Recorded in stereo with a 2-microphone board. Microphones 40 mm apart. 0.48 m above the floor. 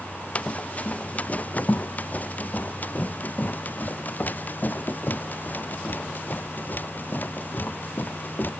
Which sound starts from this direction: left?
Running footsteps, at 0.3 s.